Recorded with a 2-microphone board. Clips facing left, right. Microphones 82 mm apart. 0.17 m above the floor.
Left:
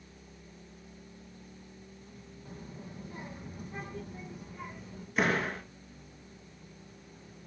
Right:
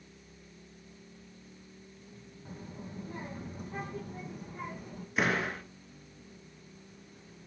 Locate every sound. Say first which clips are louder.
2.5 s a child speaking: right 2 dB; 30° right (ahead or behind), 4 m; by 5.1 s 50° right (ahead or behind), 4.5 m
5.2 s a door slam: left 1 dB; 5° right (ahead or behind), 1.9 m